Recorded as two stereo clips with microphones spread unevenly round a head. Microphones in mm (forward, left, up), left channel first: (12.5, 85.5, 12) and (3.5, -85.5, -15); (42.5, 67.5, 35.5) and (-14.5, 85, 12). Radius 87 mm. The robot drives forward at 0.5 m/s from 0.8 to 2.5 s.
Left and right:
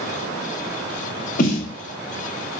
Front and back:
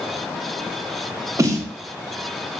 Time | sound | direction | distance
1.4 | a snare drum | 115° left | 0.6 m